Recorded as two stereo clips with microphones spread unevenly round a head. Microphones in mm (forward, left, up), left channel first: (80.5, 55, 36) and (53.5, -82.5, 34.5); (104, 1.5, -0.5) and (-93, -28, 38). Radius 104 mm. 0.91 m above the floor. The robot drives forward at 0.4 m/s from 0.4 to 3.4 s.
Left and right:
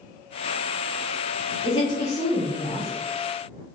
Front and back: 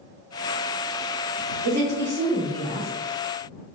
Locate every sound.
1.6 s a woman speaking: 140° left, 1.5 m; by 2.9 s 150° left, 1.9 m